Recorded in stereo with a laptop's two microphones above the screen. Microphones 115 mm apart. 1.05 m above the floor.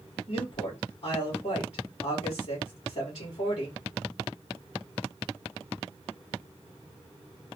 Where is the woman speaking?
80° left, 2.5 m.